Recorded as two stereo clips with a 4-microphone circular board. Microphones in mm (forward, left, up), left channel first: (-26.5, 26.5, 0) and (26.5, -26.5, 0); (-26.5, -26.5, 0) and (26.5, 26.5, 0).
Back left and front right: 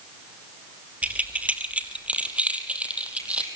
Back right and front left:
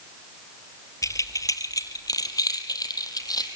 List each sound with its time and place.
1.0 s keys jangling: 110° right, 1.7 m; by 3.5 s 115° right, 3 m